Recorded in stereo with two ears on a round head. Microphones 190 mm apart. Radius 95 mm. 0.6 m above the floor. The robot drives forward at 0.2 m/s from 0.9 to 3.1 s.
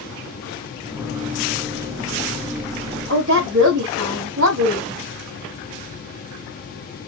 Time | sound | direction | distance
3.1 | a woman speaking | 60° right (ahead or behind) | 3 m